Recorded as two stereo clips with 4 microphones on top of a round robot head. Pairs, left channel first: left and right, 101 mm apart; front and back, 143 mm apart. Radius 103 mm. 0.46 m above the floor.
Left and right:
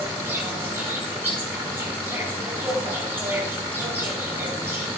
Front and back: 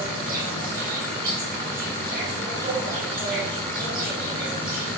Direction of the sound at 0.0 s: 155° right.